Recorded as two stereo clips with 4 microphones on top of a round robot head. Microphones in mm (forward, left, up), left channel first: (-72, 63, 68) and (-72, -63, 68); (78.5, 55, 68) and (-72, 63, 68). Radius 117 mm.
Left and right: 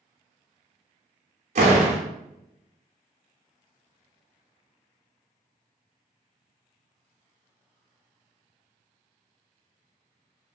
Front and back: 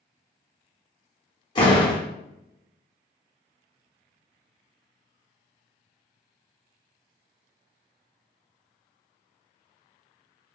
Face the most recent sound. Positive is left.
turn(degrees=-65)